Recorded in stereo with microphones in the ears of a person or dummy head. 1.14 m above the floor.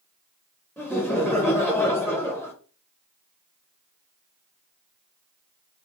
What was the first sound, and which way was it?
Laughter, 10° right (ahead or behind).